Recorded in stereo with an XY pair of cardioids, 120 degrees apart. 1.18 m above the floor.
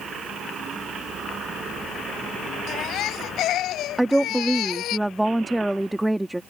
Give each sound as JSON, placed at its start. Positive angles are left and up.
{"t": 2.7, "sound": "a baby crying", "azimuth_deg": 70}
{"t": 4.0, "sound": "a woman speaking", "azimuth_deg": -5}